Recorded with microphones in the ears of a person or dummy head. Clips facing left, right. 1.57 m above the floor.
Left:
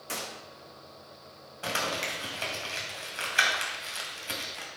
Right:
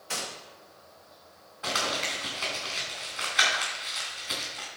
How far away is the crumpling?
About 3 m.